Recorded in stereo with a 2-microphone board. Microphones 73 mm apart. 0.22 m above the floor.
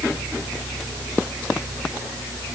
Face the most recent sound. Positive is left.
No sound to turn to.